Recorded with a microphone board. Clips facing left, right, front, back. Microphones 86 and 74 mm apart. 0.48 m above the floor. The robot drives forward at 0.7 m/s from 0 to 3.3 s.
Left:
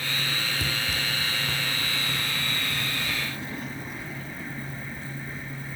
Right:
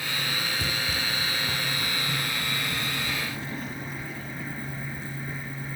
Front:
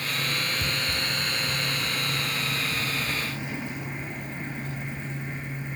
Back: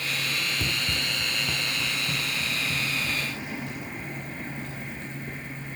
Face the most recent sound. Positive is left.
turn(degrees=-175)